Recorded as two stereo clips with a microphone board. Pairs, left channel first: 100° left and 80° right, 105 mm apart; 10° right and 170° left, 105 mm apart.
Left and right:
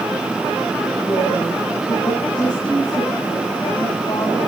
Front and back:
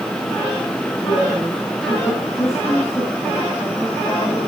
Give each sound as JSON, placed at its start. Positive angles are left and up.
{"t": 1.0, "sound": "a woman speaking", "azimuth_deg": 55, "distance_m": 9.0}